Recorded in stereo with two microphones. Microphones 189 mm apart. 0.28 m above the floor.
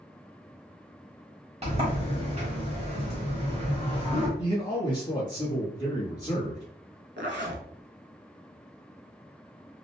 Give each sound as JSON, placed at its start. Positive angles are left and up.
{"t": 1.6, "sound": "a sliding door", "side_deg": -35, "distance_m": 1.1}
{"t": 4.4, "sound": "a man speaking", "side_deg": 25, "distance_m": 1.0}
{"t": 7.2, "sound": "a zipper", "side_deg": -80, "distance_m": 0.6}